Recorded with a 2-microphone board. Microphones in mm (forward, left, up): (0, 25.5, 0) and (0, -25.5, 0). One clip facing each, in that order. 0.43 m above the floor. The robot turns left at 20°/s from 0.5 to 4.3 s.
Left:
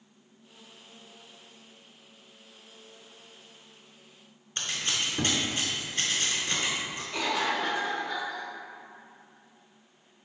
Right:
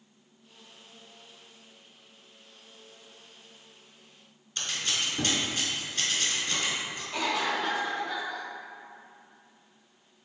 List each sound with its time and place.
4.6 s scissors: 30° left (ahead or behind), 0.8 m
7.1 s a cough: 5° left (ahead or behind), 2.0 m